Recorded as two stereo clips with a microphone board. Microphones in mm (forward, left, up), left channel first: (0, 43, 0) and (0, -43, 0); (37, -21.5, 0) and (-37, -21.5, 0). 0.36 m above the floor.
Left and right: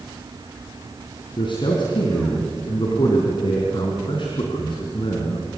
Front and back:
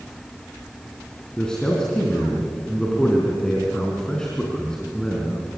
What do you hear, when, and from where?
1.4 s a man speaking: 80° left, 4 m